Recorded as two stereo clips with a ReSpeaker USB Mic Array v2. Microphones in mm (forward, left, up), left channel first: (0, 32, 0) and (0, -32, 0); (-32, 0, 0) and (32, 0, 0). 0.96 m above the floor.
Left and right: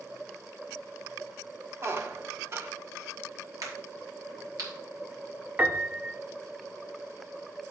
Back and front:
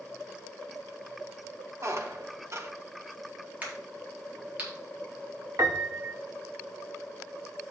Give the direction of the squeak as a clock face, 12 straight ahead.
1 o'clock.